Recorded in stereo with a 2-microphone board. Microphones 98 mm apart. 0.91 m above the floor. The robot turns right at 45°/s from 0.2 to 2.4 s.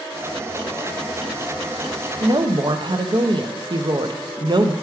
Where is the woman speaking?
55° right (ahead or behind), 0.6 m; by 4.7 s 50° right (ahead or behind), 0.6 m.